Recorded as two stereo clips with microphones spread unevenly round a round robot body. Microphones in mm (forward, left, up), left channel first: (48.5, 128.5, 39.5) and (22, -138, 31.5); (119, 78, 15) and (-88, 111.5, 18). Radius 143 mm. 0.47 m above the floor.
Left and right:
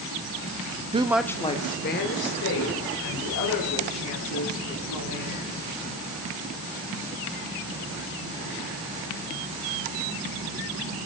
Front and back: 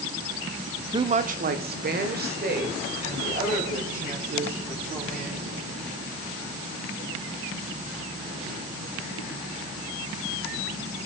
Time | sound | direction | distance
0.9 | a woman speaking | 135° right | 0.7 m